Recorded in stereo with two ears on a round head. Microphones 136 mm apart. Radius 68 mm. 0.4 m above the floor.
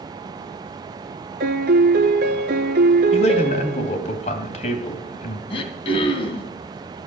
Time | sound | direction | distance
1.4 | a piano | 65° right (ahead or behind) | 1.0 m
3.1 | a man speaking | 45° left (ahead or behind) | 2.5 m
5.5 | throat clearing | 35° left (ahead or behind) | 2.5 m